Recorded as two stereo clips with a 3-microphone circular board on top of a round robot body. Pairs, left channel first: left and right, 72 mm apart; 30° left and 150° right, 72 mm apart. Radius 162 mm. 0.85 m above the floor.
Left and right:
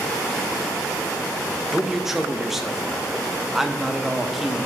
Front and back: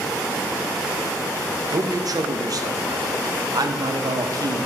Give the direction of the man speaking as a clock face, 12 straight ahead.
6 o'clock.